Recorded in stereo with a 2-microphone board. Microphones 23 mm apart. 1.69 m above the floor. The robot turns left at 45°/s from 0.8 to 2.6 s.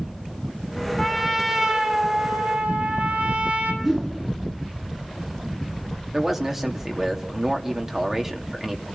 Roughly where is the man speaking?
Centre.